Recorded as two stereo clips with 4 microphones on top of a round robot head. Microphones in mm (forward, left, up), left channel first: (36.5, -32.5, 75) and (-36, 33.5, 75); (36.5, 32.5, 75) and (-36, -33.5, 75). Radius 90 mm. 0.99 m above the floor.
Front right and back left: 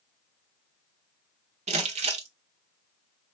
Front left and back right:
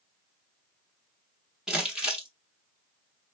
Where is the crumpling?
140° left, 0.6 m.